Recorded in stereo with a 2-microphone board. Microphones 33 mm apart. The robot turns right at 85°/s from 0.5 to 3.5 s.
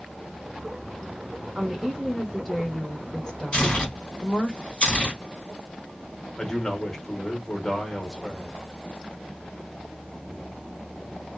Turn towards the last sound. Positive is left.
turn(degrees=15)  # may be behind; listen again after turning